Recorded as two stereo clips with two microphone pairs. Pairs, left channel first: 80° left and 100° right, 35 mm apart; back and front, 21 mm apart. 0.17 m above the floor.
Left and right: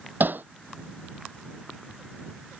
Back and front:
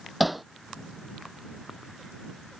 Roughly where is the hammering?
Right.